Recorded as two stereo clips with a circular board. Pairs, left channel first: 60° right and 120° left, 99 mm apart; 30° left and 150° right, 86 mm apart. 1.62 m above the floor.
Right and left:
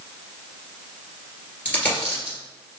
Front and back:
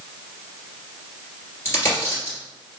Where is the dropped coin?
Straight ahead, 1.9 m.